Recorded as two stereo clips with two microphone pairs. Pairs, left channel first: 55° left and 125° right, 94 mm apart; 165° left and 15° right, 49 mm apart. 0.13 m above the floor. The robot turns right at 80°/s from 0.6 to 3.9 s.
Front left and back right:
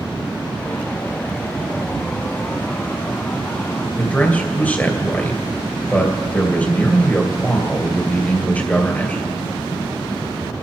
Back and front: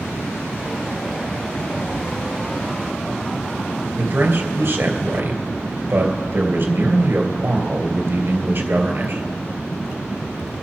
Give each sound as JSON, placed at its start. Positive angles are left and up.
{"t": 4.0, "sound": "a man speaking", "azimuth_deg": -10, "distance_m": 2.5}